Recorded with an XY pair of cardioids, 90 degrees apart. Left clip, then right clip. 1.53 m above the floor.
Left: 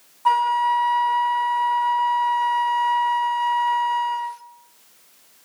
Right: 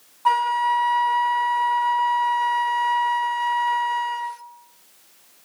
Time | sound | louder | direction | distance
0.2 | a flute | left 1 dB | 10° right | 0.6 m